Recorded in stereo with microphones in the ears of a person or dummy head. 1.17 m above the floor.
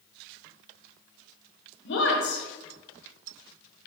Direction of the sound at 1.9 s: 55° left (ahead or behind).